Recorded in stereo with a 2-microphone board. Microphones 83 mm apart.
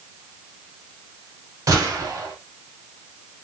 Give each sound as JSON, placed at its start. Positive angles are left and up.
{"t": 1.7, "sound": "a gunshot", "side_deg": -40, "distance_m": 1.5}